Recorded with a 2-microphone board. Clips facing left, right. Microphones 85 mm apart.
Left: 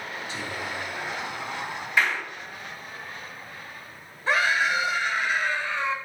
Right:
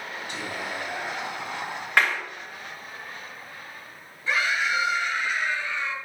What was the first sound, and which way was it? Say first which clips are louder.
Whispering: right 1 dB; 65° right (ahead or behind).